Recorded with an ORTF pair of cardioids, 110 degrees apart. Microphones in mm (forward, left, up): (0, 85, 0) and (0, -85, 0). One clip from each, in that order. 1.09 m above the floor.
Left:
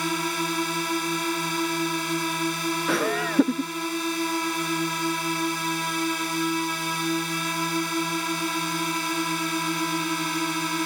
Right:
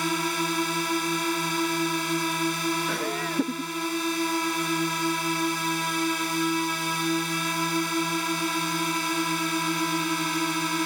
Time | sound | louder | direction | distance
0.0 | a drone | even | straight ahead | ?
2.9 | laughter | left 4 dB | 35° left | ?